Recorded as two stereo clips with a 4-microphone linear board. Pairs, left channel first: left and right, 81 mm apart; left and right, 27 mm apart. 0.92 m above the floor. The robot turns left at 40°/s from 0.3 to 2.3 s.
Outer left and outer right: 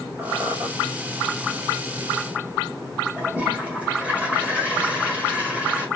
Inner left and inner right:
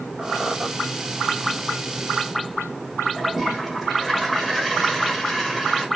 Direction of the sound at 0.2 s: 35° right (ahead or behind).